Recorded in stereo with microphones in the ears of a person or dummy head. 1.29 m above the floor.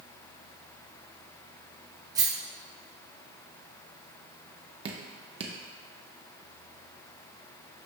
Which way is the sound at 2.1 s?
15° right (ahead or behind).